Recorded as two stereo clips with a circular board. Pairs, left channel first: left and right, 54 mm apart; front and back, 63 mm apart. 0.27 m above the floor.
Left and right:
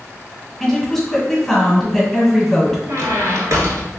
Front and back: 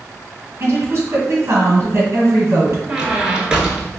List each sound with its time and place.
0.6 s a woman speaking: 175° left, 1.7 m
2.9 s a squeak: 105° right, 0.5 m